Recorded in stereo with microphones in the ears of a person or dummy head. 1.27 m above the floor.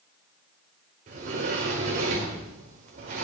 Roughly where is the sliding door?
Right.